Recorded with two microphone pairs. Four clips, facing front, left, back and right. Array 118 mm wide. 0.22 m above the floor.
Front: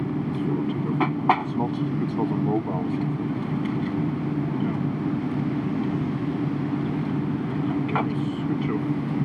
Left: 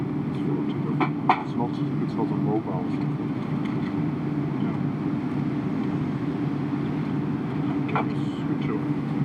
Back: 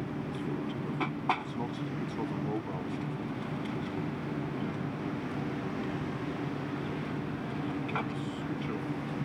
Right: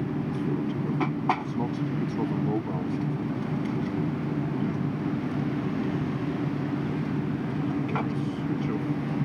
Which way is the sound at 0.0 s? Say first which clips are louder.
Left 2 dB, front 9 dB; 35° left.